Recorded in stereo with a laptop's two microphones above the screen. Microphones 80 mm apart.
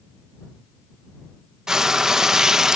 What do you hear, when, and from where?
1.7 s frying: 5° right (ahead or behind)